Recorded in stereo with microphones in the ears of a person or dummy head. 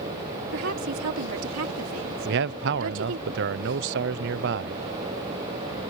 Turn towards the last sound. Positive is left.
turn(degrees=-60)  # may be behind; listen again after turning